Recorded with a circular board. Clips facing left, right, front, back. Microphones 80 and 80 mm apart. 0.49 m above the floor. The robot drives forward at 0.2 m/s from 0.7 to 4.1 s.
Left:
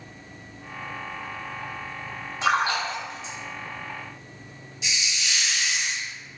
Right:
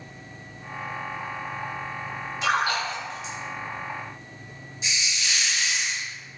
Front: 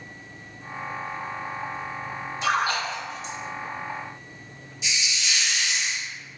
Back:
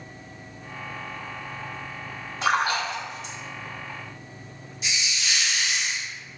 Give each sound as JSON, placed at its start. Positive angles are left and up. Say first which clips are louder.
{"t": 2.4, "sound": "a splash", "louder": "left 1 dB, back 1 dB", "azimuth_deg": 145, "distance_m": 1.5}
{"t": 4.8, "sound": "a hiss", "louder": "even, even", "azimuth_deg": -140, "distance_m": 0.9}